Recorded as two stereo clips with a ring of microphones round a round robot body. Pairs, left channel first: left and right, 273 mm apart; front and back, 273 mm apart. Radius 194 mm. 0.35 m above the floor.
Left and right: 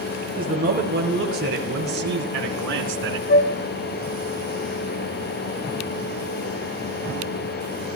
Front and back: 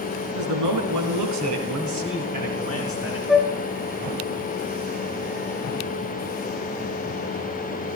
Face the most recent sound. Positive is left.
turn(degrees=90)